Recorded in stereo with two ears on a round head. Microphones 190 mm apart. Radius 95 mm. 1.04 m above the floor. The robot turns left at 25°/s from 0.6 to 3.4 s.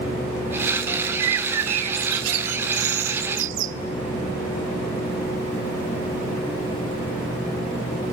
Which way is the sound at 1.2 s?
65° right.